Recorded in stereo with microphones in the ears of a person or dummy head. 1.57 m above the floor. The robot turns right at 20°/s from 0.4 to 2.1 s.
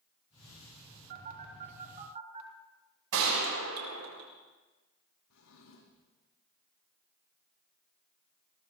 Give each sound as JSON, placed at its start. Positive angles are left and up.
{"t": 1.1, "sound": "a phone buzzing", "side_deg": -50, "distance_m": 3.5}
{"t": 3.1, "sound": "a gunshot", "side_deg": -80, "distance_m": 4.0}
{"t": 5.3, "sound": "a drawer", "side_deg": 75, "distance_m": 6.5}